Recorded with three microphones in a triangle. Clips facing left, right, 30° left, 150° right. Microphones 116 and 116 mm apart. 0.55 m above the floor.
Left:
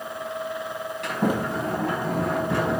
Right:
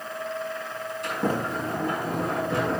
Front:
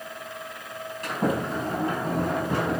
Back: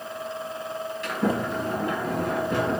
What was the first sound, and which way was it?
A sliding door, 75° left.